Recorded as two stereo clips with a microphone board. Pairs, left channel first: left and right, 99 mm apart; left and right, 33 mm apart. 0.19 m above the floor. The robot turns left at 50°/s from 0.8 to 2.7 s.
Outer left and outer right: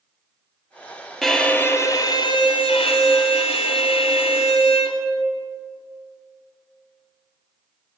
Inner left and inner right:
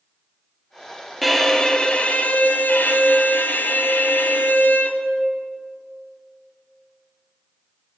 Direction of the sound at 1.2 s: Straight behind.